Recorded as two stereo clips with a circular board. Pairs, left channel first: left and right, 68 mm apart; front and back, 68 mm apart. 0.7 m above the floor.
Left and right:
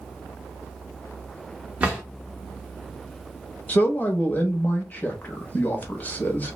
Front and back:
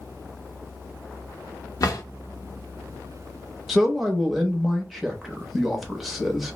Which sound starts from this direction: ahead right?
A drawer, at 1.8 s.